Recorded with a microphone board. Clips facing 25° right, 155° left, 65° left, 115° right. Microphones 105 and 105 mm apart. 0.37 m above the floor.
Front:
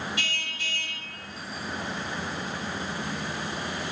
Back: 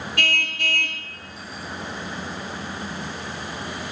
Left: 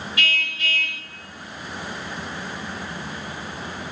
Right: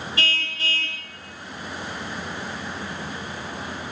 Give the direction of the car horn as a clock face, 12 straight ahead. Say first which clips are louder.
Back 8 dB, left 3 dB; 6 o'clock.